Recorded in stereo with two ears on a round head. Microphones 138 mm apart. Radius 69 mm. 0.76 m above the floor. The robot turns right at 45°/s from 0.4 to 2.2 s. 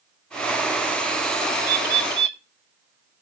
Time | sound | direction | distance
1.6 | a bird | 60° right (ahead or behind) | 1.0 m